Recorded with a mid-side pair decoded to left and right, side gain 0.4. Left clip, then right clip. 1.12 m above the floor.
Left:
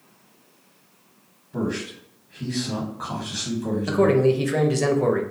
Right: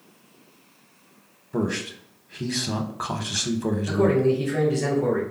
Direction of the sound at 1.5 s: 60° right.